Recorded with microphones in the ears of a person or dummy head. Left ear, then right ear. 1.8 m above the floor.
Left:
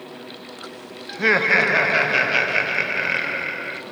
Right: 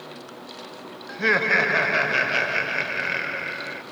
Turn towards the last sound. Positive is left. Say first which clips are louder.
# left 3 dB
turn(degrees=5)  # may be behind; listen again after turning